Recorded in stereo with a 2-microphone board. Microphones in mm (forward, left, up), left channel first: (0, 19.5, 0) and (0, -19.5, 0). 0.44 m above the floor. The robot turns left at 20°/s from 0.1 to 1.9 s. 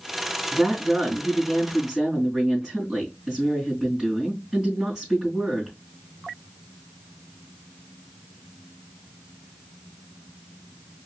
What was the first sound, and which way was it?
A woman speaking, 15° left (ahead or behind).